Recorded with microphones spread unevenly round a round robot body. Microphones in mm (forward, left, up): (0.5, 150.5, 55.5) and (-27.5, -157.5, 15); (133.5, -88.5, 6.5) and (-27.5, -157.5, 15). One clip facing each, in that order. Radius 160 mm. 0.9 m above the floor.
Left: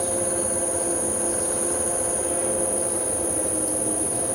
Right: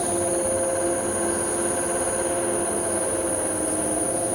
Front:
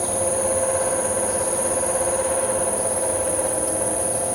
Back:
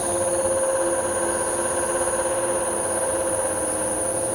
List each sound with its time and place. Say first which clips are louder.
0.0 s an insect: right 3 dB, back 1 dB; 20° left, 6 m